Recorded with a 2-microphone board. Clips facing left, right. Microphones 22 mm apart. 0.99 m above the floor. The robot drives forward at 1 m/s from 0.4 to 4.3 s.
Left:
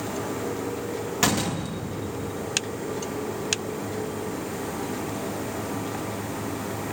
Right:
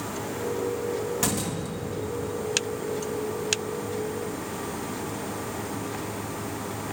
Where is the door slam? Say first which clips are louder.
Left 4 dB; 35° left (ahead or behind), 1.0 m; by 2.4 s 15° left (ahead or behind), 2 m.